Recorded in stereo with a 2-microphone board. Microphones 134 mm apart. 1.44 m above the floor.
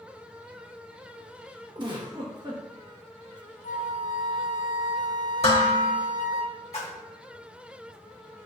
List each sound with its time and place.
1.8 s a giggle: 35° right (ahead or behind), 0.9 m
3.6 s a flute: 70° left (ahead or behind), 0.5 m
5.4 s dishes clattering: 50° left (ahead or behind), 1.3 m
6.7 s a splash: 55° left (ahead or behind), 1.1 m